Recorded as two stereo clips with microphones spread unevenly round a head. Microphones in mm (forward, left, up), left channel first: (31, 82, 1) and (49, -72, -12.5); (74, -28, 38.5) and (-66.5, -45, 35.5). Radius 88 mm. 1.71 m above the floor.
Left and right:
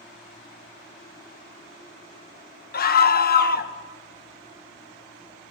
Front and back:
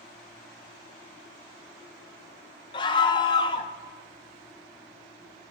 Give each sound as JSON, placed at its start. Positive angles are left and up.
{"t": 2.7, "sound": "a scream", "azimuth_deg": 75, "distance_m": 1.5}